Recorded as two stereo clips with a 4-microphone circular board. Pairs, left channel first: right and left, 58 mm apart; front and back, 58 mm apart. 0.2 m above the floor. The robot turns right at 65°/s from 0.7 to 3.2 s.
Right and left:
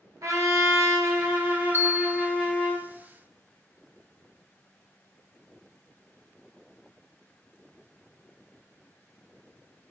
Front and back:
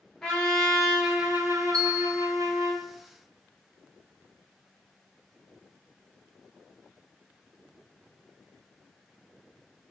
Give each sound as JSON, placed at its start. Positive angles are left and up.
{"t": 0.2, "sound": "a trumpet", "azimuth_deg": 80, "distance_m": 1.3}
{"t": 1.7, "sound": "a bell", "azimuth_deg": 75, "distance_m": 1.3}